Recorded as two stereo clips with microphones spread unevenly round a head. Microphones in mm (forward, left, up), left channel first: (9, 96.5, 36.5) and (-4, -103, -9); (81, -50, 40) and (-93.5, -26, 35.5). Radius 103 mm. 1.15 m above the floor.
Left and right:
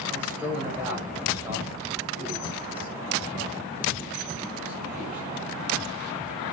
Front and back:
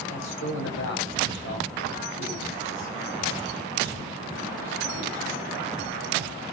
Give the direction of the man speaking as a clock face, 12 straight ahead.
12 o'clock.